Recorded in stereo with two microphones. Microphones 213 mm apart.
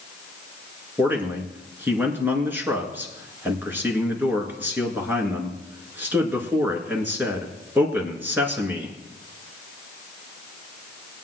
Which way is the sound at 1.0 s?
10° right (ahead or behind).